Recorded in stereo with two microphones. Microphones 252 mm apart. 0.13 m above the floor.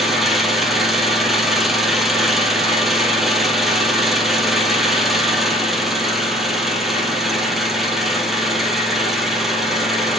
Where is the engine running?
Centre (ahead or behind), 2.5 m.